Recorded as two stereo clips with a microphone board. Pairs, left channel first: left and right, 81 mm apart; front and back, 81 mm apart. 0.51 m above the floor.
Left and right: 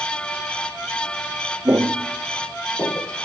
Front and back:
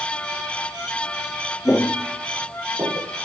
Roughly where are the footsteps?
Ahead right.